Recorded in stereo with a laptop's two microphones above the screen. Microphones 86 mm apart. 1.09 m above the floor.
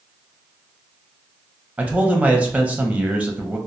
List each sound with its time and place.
1.8 s a man speaking: 15° right (ahead or behind), 0.6 m